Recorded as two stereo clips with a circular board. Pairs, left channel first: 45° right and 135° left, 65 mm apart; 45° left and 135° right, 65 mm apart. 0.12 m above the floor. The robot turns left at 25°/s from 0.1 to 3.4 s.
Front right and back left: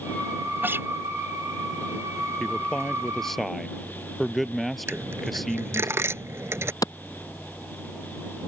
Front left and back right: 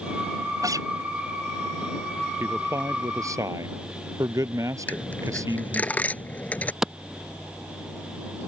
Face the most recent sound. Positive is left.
turn(degrees=-55)